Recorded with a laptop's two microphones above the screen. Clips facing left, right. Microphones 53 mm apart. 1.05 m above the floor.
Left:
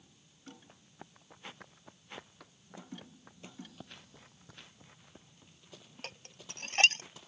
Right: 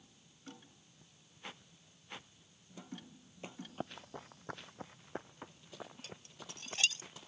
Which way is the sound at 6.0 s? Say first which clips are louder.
Left 2 dB; 55° left (ahead or behind).